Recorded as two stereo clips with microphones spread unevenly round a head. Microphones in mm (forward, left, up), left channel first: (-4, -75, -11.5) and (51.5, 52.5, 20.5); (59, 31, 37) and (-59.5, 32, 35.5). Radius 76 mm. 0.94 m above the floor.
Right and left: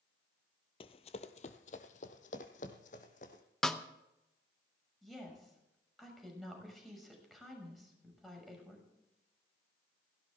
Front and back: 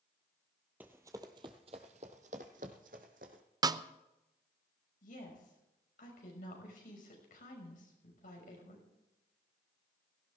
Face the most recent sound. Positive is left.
turn(degrees=-20)